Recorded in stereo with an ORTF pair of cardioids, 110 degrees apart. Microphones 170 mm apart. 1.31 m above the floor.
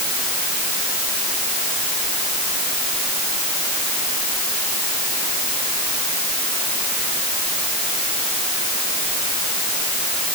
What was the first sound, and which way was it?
Only background noise.